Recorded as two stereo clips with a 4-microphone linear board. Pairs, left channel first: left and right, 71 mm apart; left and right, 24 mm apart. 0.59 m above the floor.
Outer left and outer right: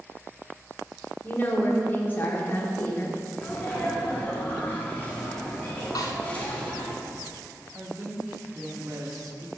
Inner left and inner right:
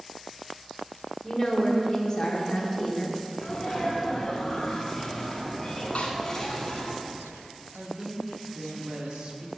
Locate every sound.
1.2 s a woman speaking: 30° left (ahead or behind), 1.3 m
3.4 s a sneeze: 20° left (ahead or behind), 1.3 m
6.0 s a snare drum: 70° left (ahead or behind), 1.1 m
7.7 s a woman speaking: 55° right (ahead or behind), 0.9 m